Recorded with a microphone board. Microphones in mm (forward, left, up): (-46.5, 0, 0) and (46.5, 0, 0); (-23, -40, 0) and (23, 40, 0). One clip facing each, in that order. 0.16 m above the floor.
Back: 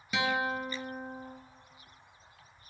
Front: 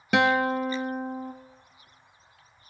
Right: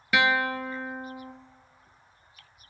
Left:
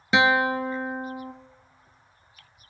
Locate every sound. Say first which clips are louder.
0.1 s a guitar: front 9 dB, left 4 dB; 5° right, 0.6 m